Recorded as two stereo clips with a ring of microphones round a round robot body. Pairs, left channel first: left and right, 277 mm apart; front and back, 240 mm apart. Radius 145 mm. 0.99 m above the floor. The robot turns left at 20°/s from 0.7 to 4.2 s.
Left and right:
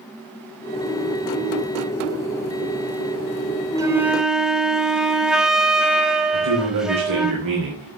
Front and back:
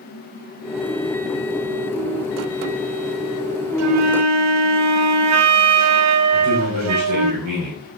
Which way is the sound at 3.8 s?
170° right.